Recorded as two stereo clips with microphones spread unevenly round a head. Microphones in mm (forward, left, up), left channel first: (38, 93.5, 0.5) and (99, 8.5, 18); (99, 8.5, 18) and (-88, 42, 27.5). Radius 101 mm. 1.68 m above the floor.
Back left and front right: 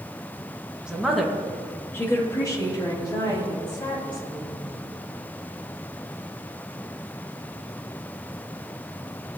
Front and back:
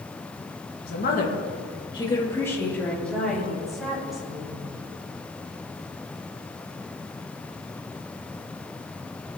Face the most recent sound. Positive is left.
turn(degrees=85)